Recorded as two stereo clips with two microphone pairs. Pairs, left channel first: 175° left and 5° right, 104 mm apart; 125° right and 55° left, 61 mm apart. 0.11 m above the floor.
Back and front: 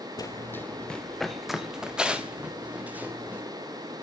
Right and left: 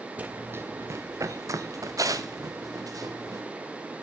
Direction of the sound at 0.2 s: 125° left.